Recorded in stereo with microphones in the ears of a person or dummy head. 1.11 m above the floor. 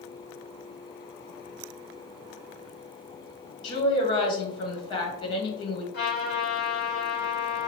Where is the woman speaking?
25° left (ahead or behind), 1.6 m.